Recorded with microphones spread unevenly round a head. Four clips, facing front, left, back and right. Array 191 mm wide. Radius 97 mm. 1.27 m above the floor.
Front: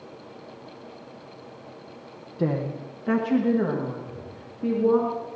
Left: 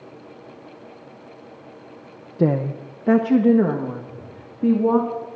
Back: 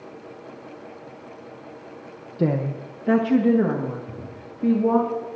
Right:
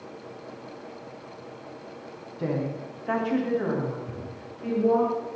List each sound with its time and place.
2.4 s a woman speaking: 105° left, 0.8 m
4.1 s a drawer: 145° right, 5 m